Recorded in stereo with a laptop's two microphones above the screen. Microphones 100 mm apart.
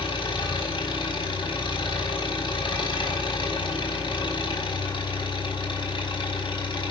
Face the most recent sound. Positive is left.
turn(degrees=55)  # may be behind; listen again after turning